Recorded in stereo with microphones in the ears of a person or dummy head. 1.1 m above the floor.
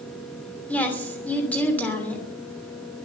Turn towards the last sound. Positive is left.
turn(degrees=10)  # may be behind; listen again after turning